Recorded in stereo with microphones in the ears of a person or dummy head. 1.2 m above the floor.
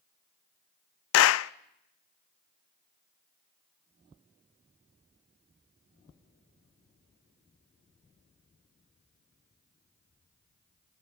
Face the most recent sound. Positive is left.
turn(degrees=80)